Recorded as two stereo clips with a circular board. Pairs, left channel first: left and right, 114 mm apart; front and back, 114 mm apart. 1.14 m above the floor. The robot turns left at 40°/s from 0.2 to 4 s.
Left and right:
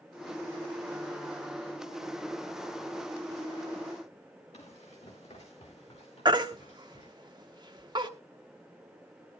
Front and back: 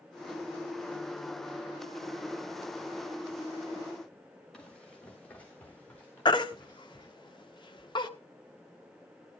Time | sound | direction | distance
4.5 | running footsteps | 85° left | 3.5 m
6.2 | a baby crying | 45° right | 0.9 m